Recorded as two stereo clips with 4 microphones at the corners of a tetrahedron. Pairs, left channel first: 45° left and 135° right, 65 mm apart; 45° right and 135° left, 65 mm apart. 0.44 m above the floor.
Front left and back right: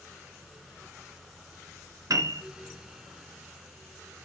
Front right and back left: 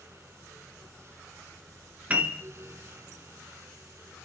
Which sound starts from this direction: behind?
A piano, at 2.1 s.